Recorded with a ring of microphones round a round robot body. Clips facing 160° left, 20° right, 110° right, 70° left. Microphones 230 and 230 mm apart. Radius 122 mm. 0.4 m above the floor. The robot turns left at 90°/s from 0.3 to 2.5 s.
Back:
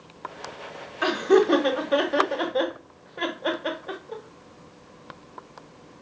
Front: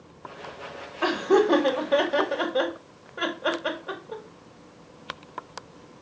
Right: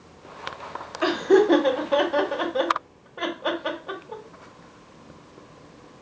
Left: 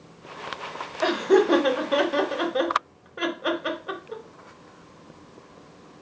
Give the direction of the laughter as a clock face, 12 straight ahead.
6 o'clock.